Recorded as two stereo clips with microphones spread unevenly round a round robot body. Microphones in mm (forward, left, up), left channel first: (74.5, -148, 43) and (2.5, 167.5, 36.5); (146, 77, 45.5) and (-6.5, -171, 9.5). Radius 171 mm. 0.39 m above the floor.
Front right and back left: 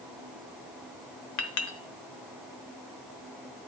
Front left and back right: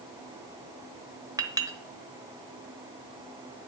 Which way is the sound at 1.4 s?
50° right.